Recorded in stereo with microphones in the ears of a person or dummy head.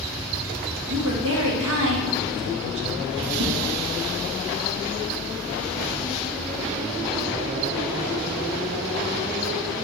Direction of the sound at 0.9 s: 70° right (ahead or behind).